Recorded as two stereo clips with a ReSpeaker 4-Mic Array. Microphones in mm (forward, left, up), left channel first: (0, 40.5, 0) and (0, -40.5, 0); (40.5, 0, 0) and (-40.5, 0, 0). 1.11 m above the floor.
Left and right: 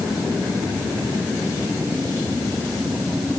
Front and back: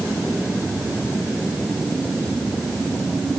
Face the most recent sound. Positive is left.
No sound to turn to.